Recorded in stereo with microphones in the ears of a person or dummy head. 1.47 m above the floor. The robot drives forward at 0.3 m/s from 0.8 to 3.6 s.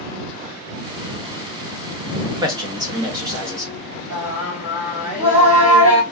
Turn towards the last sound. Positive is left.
turn(degrees=-35)  # may be behind; listen again after turning